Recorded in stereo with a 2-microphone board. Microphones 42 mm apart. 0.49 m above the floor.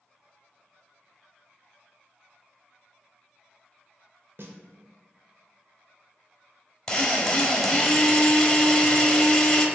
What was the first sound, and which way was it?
A snare drum, 55° right (ahead or behind).